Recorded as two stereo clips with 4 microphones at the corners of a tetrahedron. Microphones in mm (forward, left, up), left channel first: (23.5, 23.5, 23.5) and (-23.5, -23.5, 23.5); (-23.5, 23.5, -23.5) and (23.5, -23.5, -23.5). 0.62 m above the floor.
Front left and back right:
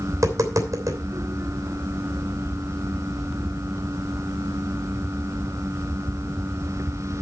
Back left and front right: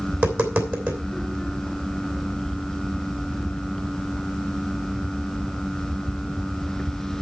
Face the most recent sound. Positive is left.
turn(degrees=-100)